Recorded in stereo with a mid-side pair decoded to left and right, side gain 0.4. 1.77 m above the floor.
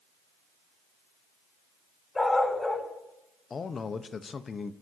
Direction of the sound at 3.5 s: 45° left.